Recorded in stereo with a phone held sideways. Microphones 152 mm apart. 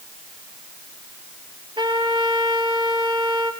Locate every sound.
1.8 s a trumpet: 30° right (ahead or behind), 3.5 m